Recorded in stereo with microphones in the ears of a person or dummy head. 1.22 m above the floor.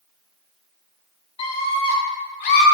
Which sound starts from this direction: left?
A scream, at 1.4 s.